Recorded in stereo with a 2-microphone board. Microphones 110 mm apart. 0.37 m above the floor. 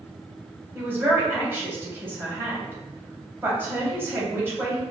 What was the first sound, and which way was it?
A man speaking, 20° right (ahead or behind).